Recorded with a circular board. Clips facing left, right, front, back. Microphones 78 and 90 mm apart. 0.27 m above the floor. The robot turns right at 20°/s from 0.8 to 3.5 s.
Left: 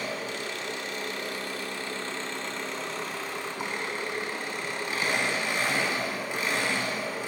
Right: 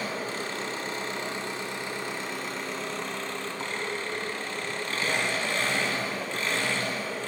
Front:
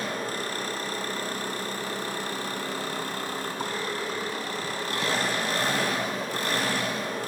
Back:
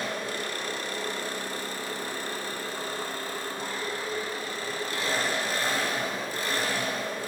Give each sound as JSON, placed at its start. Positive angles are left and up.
{"t": 0.0, "sound": "an engine running", "azimuth_deg": -40, "distance_m": 0.8}